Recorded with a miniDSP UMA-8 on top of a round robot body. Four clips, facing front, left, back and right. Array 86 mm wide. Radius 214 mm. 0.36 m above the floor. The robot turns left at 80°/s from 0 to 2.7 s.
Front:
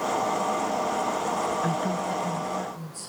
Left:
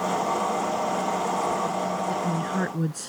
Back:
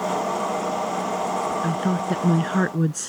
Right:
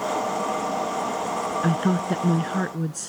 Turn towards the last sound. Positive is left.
turn(degrees=175)